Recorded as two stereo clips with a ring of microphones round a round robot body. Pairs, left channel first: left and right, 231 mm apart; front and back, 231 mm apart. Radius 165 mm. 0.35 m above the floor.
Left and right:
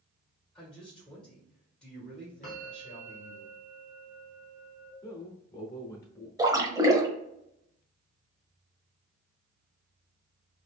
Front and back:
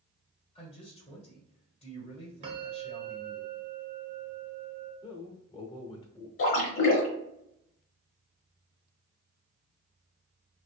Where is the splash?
15° right, 1.0 m.